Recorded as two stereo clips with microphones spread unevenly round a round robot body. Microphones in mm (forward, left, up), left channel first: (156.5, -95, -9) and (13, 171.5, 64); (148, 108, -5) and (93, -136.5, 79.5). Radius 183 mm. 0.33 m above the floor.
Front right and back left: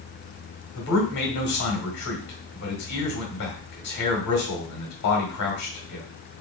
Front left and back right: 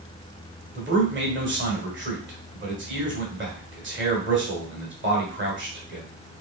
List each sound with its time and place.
0.8 s a man speaking: 55° right, 1.8 m